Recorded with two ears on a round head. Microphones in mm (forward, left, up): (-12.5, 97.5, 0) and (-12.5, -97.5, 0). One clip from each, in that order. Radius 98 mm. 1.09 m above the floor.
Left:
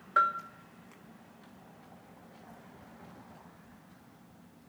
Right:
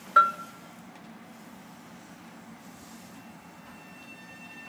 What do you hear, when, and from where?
0.2 s a bell: 15° right (ahead or behind), 0.6 m